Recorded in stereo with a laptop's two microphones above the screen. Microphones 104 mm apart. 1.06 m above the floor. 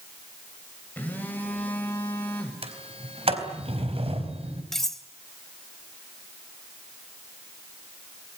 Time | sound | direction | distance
1.0 | a phone buzzing | 15° left (ahead or behind) | 6.5 m
2.6 | a sliding door | 70° right (ahead or behind) | 4 m
4.7 | cutlery clinking | 5° left (ahead or behind) | 3 m